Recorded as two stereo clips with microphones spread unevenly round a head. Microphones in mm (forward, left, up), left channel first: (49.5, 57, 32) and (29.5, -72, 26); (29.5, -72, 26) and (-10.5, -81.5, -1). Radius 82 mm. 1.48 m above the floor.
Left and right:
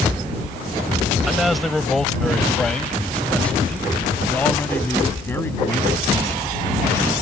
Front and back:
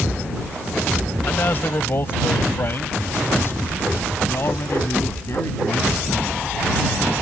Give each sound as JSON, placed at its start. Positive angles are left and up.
{"t": 1.3, "sound": "a man speaking", "azimuth_deg": -10}